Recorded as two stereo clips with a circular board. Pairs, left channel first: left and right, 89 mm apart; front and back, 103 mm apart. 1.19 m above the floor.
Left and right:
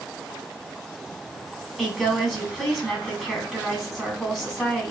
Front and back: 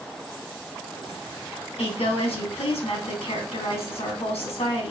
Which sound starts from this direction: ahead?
A woman speaking, at 1.8 s.